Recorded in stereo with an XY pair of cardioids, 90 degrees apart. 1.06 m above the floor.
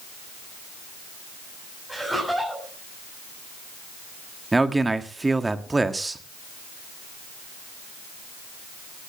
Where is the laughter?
Straight ahead, 7.5 m.